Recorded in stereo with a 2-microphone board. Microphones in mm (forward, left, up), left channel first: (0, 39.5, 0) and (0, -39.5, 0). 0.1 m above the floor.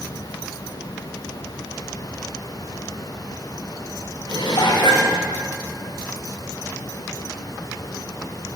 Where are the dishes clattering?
60° left (ahead or behind), 5.5 m.